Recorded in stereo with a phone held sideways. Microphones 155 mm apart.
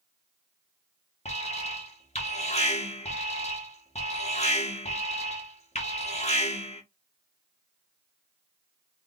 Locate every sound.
1.2 s an alarm: 40° left (ahead or behind), 1.3 m